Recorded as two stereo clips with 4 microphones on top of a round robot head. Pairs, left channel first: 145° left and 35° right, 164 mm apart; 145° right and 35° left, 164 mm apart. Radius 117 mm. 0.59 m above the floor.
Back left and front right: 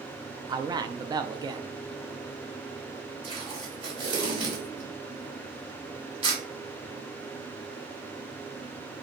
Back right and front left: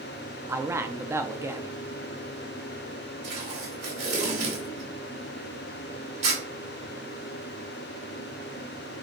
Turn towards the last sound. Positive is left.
turn(degrees=20)